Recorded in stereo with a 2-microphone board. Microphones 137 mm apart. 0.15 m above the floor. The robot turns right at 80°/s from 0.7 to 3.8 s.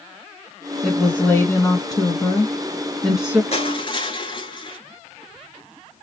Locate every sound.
0.8 s a woman speaking: centre (ahead or behind), 1.3 m; by 3.4 s 10° right (ahead or behind), 1.3 m
3.5 s crushing: 50° left (ahead or behind), 1.6 m; by 4.8 s 35° left (ahead or behind), 1.6 m